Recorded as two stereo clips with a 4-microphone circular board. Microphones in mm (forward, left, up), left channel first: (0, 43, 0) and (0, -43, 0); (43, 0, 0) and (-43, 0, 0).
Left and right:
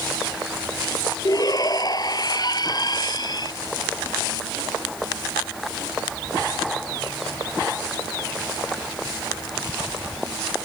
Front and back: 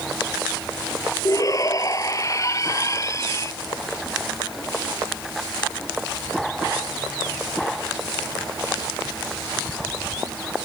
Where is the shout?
45° left; by 3.5 s 55° left.